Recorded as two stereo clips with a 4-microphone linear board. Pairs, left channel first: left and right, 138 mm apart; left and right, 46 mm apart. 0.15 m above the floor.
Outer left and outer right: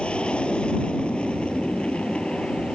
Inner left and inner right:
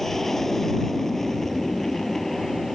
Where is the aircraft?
5° left (ahead or behind).